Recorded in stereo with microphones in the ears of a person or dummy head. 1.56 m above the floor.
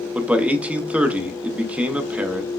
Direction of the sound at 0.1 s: 5° right (ahead or behind).